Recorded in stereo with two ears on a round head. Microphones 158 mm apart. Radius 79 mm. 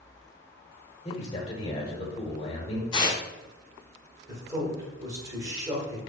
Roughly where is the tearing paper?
Left.